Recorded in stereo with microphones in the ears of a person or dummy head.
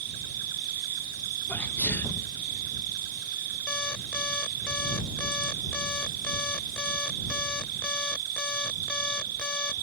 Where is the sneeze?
10° left (ahead or behind).